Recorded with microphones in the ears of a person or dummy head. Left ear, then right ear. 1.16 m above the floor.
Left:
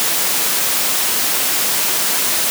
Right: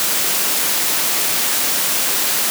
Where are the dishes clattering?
I don't hear dishes clattering.